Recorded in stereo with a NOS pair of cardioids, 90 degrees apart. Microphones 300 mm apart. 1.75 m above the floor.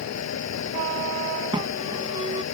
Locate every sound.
0.0 s a fan: 60° left
1.5 s an alarm: 15° right